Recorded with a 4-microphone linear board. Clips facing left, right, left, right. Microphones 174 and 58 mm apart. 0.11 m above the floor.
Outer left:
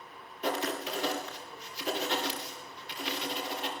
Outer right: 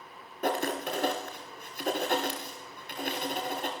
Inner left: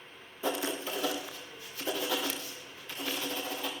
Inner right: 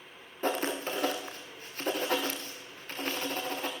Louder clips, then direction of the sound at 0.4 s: Outer right 3 dB, inner right 2 dB; 50° right (ahead or behind).